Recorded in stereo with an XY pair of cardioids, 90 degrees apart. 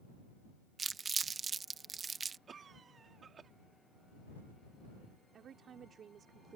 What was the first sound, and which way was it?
Crumpling, 45° right.